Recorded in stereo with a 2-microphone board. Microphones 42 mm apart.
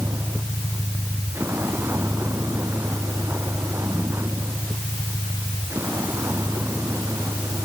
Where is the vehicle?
85° right; by 7.7 s 75° right (ahead or behind).